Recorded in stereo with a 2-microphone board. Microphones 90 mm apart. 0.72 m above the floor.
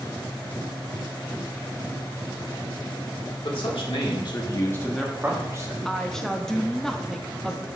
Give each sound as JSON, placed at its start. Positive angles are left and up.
{"t": 3.4, "sound": "a man speaking", "side_deg": 75, "distance_m": 2.0}
{"t": 5.8, "sound": "a woman speaking", "side_deg": 5, "distance_m": 0.5}